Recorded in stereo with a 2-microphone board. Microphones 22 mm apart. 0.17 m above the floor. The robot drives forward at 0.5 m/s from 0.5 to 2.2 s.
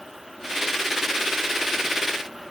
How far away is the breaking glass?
I don't hear breaking glass.